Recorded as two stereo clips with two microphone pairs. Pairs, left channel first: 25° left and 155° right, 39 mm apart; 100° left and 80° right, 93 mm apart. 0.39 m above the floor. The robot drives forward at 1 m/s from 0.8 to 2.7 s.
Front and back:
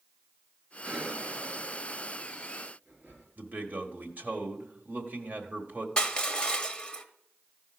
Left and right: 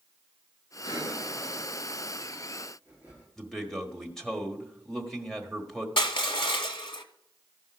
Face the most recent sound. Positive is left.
turn(degrees=85)